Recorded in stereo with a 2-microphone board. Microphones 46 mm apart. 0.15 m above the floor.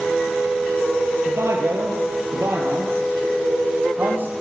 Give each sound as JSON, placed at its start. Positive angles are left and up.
{"t": 1.2, "sound": "a man speaking", "side_deg": -70, "distance_m": 4.0}